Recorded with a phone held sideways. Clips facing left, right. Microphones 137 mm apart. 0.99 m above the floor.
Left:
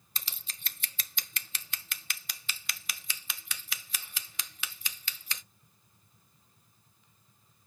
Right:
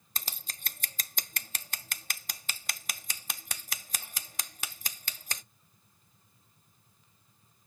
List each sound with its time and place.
0.1 s scissors: 45° right (ahead or behind), 0.7 m